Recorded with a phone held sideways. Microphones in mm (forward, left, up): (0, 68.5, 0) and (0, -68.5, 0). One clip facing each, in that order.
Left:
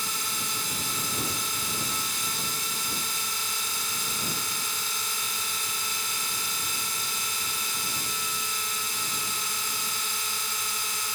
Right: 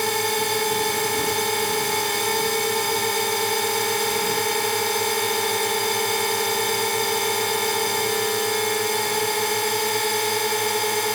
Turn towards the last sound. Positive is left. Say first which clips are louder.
# right 15 dB
turn(degrees=-65)  # may be behind; listen again after turning